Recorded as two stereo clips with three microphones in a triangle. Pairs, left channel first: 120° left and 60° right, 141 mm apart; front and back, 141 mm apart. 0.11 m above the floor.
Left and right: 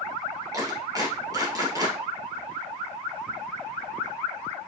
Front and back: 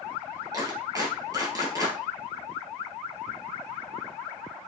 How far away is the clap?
About 1.9 m.